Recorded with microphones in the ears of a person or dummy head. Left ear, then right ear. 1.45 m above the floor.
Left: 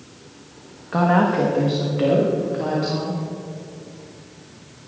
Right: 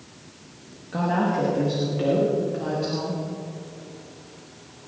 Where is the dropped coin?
I don't hear a dropped coin.